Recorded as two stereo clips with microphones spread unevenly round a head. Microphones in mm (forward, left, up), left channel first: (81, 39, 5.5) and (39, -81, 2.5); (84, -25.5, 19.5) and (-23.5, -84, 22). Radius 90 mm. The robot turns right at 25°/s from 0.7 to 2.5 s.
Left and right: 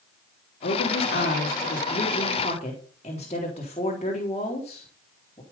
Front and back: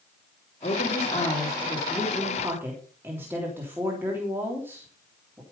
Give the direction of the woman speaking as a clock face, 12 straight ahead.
9 o'clock.